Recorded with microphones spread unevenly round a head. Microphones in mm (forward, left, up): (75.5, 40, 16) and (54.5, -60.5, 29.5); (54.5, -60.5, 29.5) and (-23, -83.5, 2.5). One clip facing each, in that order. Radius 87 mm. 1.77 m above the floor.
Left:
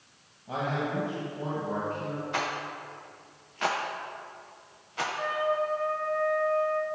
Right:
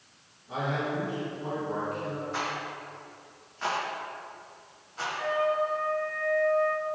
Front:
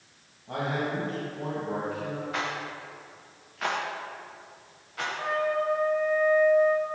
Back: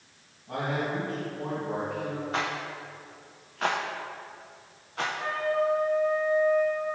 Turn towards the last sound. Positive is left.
turn(degrees=35)